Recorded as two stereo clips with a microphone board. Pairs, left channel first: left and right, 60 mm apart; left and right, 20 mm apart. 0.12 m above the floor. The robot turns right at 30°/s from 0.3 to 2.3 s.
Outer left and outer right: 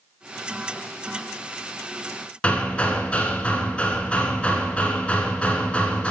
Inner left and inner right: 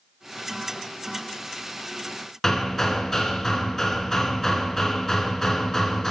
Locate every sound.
2.4 s hammering: 20° left (ahead or behind), 1.0 m